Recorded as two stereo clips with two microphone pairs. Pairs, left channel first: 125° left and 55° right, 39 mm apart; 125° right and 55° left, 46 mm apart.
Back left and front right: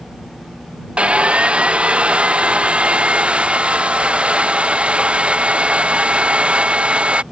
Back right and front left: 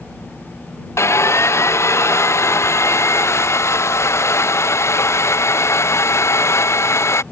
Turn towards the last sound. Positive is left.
turn(degrees=-115)